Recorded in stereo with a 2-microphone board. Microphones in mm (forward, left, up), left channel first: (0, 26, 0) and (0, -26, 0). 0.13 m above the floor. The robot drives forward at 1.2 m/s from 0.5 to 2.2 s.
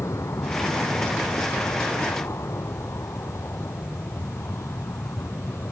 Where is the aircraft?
70° left (ahead or behind); by 5.7 s 65° left (ahead or behind).